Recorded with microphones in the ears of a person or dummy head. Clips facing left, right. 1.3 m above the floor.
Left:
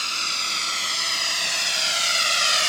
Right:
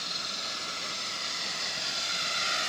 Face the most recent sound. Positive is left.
turn(degrees=80)